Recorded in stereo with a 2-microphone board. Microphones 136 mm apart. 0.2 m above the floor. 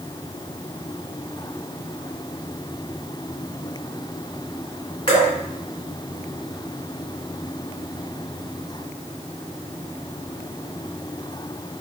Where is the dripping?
35° left (ahead or behind), 1.7 m.